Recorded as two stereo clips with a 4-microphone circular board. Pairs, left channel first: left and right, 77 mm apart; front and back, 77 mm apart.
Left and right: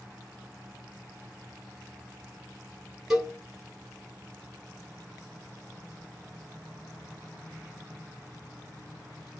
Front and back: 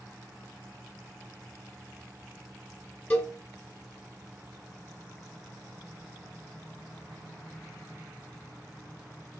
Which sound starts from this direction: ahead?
A cowbell, at 3.1 s.